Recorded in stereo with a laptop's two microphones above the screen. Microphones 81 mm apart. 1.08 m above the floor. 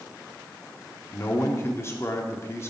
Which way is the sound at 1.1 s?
35° left (ahead or behind).